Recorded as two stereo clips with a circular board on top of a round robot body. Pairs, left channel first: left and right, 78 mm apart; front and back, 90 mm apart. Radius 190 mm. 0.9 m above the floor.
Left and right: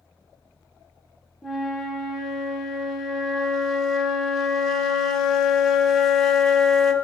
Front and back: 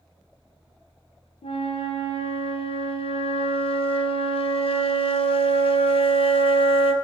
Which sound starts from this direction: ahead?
A flute, at 1.4 s.